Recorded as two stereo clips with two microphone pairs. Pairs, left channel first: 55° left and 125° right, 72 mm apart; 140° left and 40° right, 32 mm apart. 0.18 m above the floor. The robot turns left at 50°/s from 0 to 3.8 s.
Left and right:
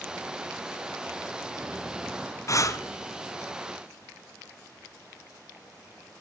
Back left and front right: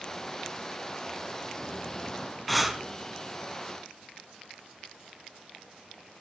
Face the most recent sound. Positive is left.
turn(degrees=-5)